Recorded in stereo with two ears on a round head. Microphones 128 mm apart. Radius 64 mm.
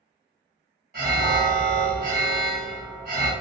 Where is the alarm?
65° right (ahead or behind), 1.8 m.